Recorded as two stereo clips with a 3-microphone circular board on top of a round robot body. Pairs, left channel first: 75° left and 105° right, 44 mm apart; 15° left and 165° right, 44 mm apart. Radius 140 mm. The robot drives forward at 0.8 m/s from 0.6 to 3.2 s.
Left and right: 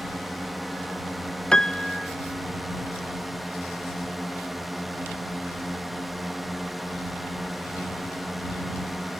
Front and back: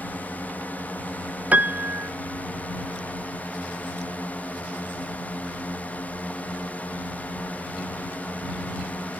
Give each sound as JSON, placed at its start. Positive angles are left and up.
{"t": 0.0, "sound": "a drone", "azimuth_deg": -15}
{"t": 1.5, "sound": "a piano", "azimuth_deg": 145}